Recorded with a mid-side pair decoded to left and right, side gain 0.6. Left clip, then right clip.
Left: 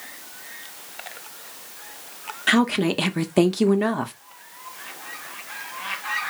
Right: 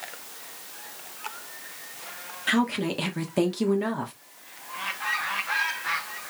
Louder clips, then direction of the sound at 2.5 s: Left 5 dB; 30° left.